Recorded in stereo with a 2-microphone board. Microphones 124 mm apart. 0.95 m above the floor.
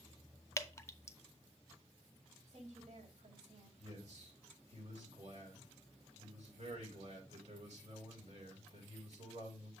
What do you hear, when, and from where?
0.6 s dripping: 25° left (ahead or behind), 0.6 m
2.5 s a woman speaking: 80° right, 4 m
3.8 s a man speaking: 65° right (ahead or behind), 4.5 m